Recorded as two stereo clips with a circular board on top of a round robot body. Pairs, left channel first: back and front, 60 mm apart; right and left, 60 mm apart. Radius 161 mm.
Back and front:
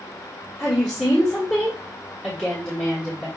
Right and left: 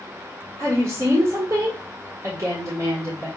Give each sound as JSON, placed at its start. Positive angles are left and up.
{"t": 0.6, "sound": "a woman speaking", "azimuth_deg": 110, "distance_m": 1.5}